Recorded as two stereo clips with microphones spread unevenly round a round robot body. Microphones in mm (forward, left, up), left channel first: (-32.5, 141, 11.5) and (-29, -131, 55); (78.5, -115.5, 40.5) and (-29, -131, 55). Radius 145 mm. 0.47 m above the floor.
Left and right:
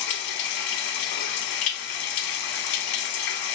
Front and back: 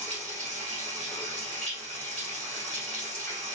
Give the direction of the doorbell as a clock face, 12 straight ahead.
I don't hear a doorbell.